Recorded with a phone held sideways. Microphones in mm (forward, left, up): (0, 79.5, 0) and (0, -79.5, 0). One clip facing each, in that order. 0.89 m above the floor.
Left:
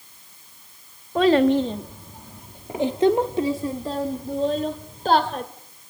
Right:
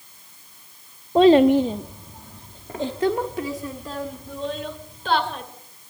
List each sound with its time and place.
1.1 s a child speaking: 25° right (ahead or behind), 0.9 m; by 5.4 s 45° left (ahead or behind), 2.5 m